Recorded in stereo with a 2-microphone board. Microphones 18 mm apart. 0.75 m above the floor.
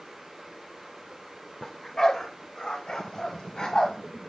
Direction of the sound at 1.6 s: 40° left (ahead or behind).